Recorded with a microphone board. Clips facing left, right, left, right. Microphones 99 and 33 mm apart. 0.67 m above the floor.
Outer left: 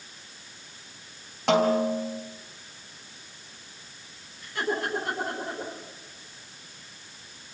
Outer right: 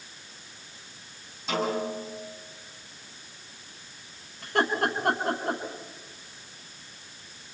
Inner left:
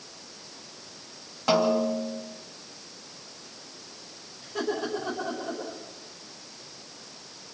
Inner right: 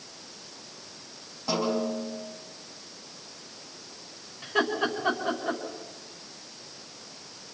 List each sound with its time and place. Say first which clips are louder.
1.5 s a snare drum: outer left 7 dB, inner left 5 dB; 75° left (ahead or behind), 4.5 m
4.4 s laughter: outer right 4 dB, inner right 4 dB; 65° right (ahead or behind), 6 m